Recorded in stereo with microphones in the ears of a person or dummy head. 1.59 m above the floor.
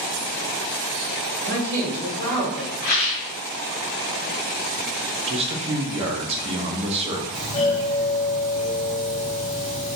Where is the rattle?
25° left (ahead or behind), 0.7 m.